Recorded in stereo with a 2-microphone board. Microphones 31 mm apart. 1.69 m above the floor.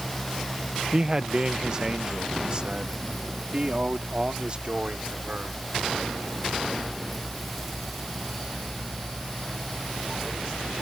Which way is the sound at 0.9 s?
25° right (ahead or behind).